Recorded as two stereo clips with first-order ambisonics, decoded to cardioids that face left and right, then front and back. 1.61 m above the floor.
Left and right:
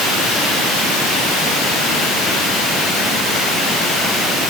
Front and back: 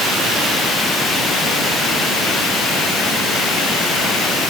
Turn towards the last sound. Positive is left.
No sound to turn to.